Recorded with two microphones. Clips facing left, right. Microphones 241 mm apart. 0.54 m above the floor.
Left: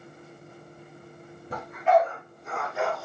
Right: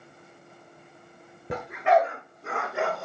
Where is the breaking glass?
No breaking glass in this recording.